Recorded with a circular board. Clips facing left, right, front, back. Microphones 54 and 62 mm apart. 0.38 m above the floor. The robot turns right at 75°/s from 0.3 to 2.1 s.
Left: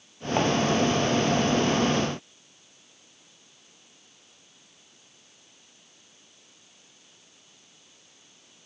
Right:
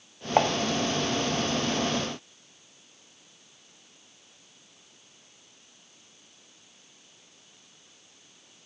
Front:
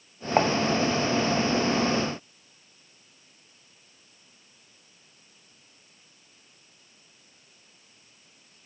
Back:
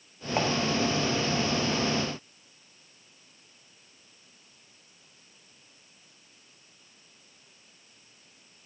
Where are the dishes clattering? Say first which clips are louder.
Right 2 dB, front 6 dB; 40° right, 0.7 m; by 0.5 s 25° right, 0.7 m.